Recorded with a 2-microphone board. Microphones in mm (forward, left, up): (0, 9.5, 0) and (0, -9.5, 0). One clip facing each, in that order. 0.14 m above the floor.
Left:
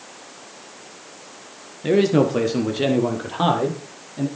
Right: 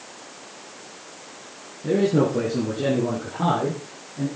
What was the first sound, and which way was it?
A man speaking, 65° left (ahead or behind).